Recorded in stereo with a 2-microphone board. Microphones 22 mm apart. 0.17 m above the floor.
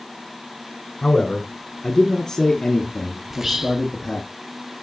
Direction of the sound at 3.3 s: 20° right (ahead or behind).